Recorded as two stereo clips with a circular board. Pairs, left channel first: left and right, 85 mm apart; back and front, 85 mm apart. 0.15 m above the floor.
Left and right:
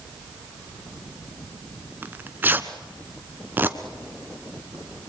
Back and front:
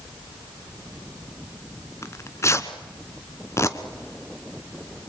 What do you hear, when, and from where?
2.0 s tearing paper: 145° right, 1.6 m